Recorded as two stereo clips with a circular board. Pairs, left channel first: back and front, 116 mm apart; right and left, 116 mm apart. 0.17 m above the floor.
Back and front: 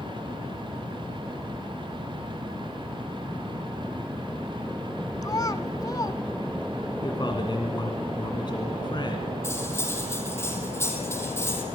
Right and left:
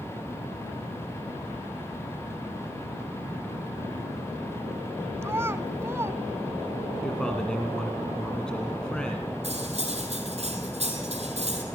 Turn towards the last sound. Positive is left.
turn(degrees=115)